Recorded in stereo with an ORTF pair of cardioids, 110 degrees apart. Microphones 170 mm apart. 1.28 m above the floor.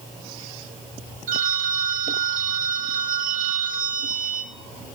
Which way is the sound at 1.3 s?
55° right.